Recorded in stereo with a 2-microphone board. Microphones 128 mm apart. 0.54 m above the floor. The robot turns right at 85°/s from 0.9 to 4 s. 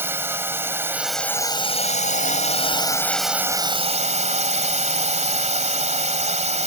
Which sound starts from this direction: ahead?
A drone, at 0.0 s.